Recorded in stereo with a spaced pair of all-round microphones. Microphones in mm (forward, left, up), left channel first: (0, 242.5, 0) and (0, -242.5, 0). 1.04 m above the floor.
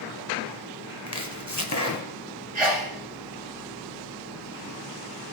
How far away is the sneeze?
About 1.6 m.